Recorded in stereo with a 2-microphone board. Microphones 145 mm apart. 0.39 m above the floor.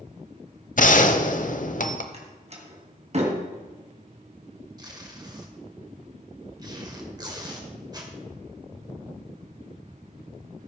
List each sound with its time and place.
0.8 s a gunshot: 65° left (ahead or behind), 0.9 m
2.1 s a door slam: 50° right (ahead or behind), 2 m
4.8 s tape being pulled: 30° right (ahead or behind), 1.8 m